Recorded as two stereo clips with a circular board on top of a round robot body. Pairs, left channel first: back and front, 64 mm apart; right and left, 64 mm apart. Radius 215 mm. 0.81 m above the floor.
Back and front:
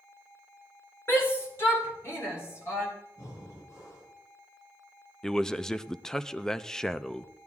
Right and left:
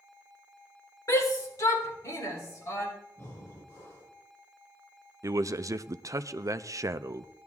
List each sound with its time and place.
1.1 s a shout: 130° right, 3.5 m; by 2.9 s 135° right, 4.5 m
3.2 s breathing: 140° right, 7.5 m
5.2 s a man speaking: 100° left, 0.8 m